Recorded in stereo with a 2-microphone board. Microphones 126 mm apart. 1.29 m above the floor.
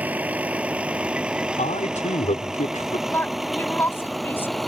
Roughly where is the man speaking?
Left.